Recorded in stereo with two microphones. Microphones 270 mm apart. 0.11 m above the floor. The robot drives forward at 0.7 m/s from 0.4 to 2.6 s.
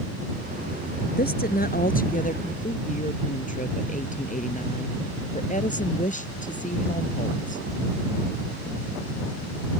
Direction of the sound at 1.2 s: 35° left (ahead or behind).